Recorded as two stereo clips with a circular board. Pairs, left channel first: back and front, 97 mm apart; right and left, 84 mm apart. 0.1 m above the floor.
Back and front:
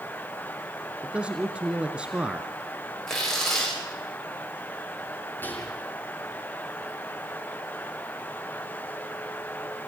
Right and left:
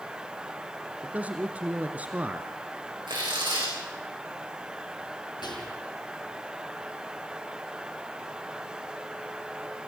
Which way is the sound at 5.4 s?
110° right.